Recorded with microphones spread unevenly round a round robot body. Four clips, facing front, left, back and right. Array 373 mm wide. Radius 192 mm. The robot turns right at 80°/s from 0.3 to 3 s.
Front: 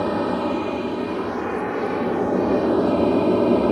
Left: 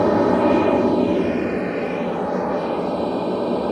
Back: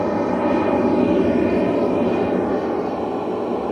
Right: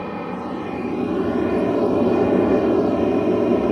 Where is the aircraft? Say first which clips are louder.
Left 12 dB, back 3 dB; 100° left; by 3.7 s 45° right.